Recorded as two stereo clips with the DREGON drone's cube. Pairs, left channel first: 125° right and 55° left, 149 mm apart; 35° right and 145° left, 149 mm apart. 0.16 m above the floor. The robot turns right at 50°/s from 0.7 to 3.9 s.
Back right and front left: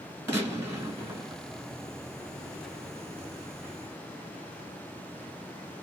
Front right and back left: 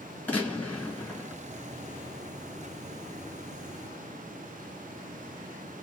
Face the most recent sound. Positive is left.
turn(degrees=-175)